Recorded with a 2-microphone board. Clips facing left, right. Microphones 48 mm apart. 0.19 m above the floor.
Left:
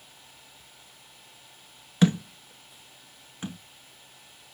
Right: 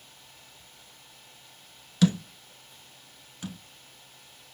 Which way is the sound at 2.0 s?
25° left (ahead or behind).